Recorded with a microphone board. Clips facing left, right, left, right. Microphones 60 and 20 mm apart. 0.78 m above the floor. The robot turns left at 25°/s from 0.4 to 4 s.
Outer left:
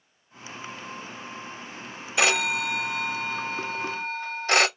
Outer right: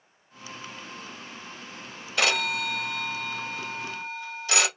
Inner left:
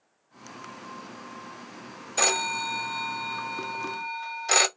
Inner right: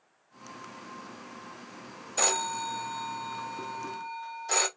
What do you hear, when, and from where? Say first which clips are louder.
2.2 s a phone ringing: outer left 2 dB, inner left 4 dB; 165° left, 0.7 m; by 4.7 s 115° left, 0.7 m